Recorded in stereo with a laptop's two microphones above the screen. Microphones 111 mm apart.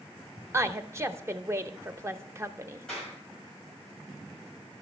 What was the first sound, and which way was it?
A woman speaking, 25° right (ahead or behind).